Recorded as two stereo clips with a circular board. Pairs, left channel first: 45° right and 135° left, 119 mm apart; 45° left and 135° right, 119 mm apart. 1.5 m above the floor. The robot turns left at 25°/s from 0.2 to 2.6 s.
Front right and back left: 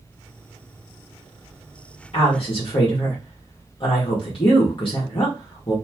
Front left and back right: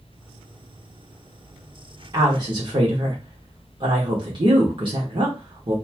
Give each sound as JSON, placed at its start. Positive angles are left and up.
{"t": 2.1, "sound": "a woman speaking", "azimuth_deg": -75, "distance_m": 1.0}